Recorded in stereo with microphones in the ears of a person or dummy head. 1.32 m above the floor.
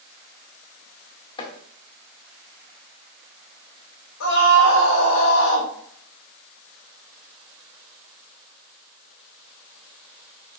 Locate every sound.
1.4 s chopping: 25° left (ahead or behind), 1.6 m
4.2 s a scream: 80° left, 2 m